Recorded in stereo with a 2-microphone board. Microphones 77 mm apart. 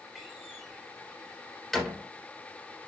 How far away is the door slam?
About 3 m.